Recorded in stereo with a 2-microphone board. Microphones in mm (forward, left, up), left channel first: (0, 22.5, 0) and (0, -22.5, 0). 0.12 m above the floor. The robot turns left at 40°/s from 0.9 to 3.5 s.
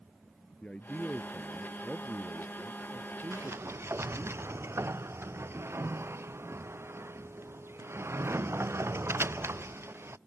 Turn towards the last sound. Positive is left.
turn(degrees=-65)  # may be behind; listen again after turning